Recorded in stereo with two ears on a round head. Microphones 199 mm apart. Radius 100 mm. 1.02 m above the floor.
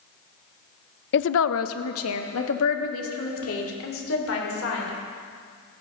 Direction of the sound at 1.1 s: 50° left (ahead or behind).